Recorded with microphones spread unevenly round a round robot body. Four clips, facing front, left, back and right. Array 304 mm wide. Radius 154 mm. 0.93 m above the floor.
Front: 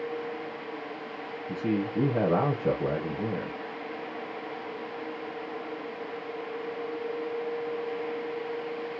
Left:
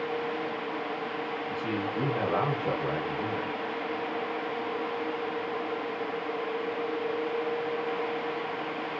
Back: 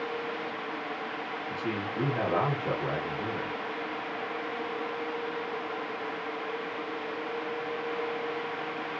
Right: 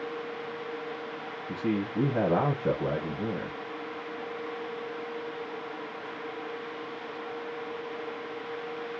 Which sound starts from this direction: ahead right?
A man speaking, at 1.5 s.